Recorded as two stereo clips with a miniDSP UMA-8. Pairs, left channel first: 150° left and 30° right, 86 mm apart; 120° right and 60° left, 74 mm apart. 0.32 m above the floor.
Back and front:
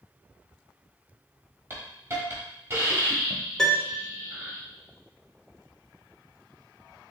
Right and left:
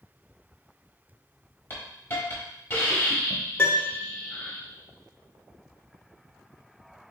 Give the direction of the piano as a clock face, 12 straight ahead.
5 o'clock.